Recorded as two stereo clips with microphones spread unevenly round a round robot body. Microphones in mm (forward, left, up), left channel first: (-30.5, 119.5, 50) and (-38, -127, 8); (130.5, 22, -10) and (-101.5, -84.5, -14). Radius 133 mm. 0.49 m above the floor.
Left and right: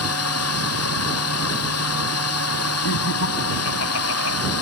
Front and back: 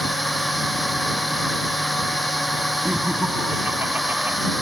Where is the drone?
115° left.